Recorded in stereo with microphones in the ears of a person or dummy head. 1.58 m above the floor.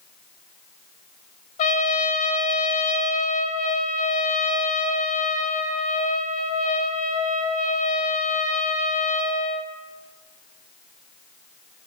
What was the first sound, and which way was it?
A trumpet, 45° left (ahead or behind).